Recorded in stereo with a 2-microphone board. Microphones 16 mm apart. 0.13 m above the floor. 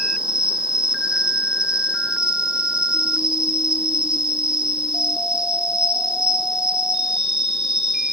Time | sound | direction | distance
0.0 | an insect | 60° right (ahead or behind) | 2.5 m